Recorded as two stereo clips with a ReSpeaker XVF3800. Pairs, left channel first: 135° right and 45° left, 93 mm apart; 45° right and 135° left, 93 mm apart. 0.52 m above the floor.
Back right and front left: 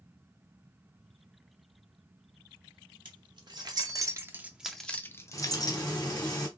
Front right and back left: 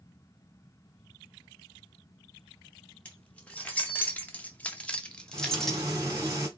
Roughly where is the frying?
Behind.